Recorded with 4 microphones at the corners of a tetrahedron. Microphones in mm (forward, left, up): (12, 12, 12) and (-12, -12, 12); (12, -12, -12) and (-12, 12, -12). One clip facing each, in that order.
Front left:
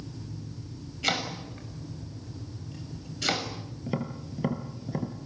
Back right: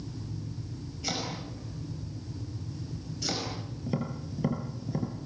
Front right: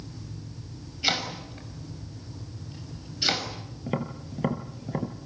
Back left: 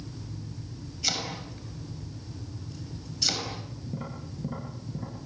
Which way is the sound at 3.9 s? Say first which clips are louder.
Front left 1 dB, front right 8 dB; 25° right.